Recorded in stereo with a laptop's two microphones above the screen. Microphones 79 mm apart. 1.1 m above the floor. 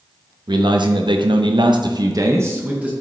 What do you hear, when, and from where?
0.5 s a man speaking: 65° right (ahead or behind), 0.9 m; by 2.9 s 15° right (ahead or behind), 0.7 m